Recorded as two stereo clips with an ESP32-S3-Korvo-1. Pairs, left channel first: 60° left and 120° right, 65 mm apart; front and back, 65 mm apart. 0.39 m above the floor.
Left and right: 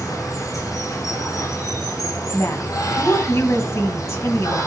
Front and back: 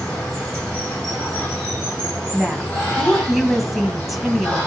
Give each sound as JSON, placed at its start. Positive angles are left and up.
{"t": 0.0, "sound": "running water", "azimuth_deg": 75, "distance_m": 5.5}
{"t": 2.3, "sound": "a woman speaking", "azimuth_deg": 90, "distance_m": 2.0}